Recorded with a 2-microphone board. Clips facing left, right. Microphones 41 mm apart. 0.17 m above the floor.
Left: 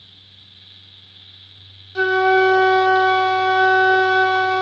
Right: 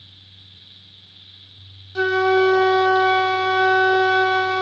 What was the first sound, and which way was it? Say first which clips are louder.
A flute: left 2 dB; 10° left (ahead or behind).